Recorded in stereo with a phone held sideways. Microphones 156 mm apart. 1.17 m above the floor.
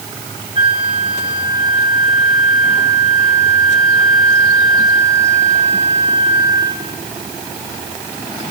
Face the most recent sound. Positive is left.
turn(degrees=-35)  # may be behind; listen again after turning